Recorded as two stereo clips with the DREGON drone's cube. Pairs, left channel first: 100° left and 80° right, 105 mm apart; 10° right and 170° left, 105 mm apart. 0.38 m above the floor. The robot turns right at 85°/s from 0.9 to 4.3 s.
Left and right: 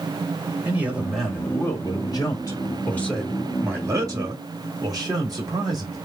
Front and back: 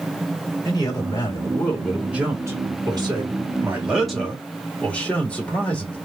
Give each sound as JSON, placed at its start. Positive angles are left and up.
{"t": 0.7, "sound": "a man speaking", "azimuth_deg": -10, "distance_m": 1.8}